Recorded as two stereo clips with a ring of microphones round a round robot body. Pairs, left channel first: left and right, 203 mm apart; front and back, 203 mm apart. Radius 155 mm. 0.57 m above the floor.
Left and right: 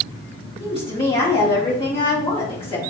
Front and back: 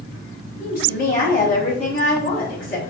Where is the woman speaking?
30° left, 1.9 m.